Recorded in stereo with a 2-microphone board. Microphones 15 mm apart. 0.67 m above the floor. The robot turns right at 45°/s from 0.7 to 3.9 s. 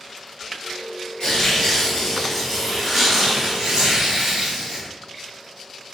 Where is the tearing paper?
110° left, 2.5 m; by 4.9 s 130° right, 2.5 m.